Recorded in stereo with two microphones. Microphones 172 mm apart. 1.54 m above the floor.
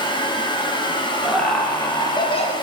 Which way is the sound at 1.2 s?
Centre (ahead or behind).